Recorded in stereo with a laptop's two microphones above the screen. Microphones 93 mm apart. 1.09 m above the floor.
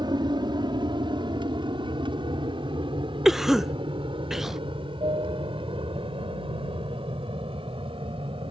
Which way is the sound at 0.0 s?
55° right (ahead or behind).